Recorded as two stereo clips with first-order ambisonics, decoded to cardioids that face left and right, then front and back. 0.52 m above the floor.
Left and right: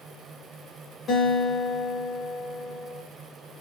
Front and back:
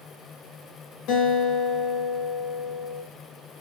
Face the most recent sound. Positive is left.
turn(degrees=25)